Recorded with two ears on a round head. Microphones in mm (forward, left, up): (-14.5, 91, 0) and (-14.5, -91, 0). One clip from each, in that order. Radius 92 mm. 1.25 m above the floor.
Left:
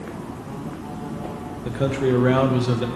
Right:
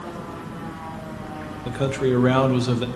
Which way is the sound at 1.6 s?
15° right (ahead or behind).